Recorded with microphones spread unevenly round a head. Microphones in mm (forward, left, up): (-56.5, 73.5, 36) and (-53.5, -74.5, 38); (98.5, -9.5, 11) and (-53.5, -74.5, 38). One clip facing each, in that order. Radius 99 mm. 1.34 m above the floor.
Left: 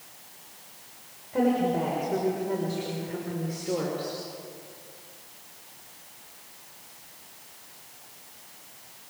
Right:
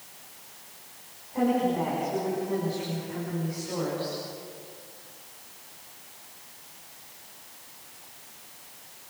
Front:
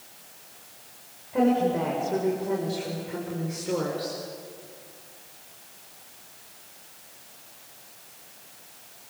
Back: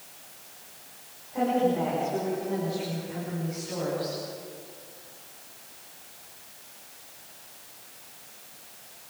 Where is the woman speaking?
55° left, 6 m; by 4.2 s 40° left, 5 m.